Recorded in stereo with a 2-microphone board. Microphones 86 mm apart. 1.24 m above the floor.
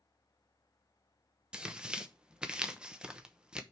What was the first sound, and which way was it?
Tearing paper, 10° right (ahead or behind).